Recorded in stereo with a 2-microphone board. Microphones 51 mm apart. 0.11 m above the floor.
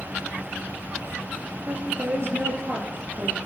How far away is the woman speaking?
About 2.5 m.